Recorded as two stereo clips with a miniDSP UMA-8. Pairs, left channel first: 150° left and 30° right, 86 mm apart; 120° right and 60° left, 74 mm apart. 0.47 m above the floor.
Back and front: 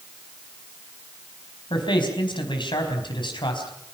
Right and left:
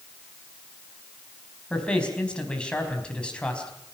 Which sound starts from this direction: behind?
A man speaking, at 1.7 s.